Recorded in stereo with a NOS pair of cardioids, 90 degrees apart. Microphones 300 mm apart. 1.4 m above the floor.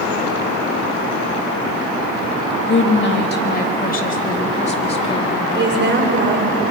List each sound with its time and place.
2.7 s a woman speaking: 40° left, 3 m; by 5.4 s 15° left, 3.5 m
5.5 s a woman speaking: 35° right, 6.5 m